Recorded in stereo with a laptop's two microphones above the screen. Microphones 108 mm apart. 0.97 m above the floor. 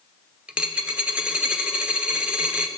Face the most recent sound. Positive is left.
turn(degrees=-10)  # may be behind; listen again after turning